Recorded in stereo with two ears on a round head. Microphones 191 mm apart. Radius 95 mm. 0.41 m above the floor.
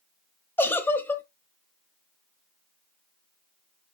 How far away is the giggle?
About 0.7 m.